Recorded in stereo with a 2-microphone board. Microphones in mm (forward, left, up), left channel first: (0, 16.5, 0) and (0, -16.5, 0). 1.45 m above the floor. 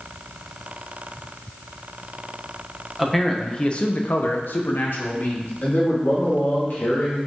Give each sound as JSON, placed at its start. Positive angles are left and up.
{"t": 3.0, "sound": "a man speaking", "side_deg": 0, "distance_m": 0.8}
{"t": 5.6, "sound": "a man speaking", "side_deg": 60, "distance_m": 2.0}